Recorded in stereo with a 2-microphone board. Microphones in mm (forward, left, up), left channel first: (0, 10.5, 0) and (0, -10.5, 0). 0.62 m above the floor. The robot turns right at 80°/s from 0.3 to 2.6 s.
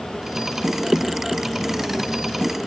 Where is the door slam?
No door slam in this recording.